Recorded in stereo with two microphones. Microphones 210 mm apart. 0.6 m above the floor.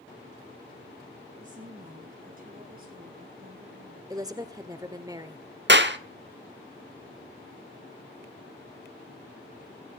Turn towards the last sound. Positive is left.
turn(degrees=-60)  # may be behind; listen again after turning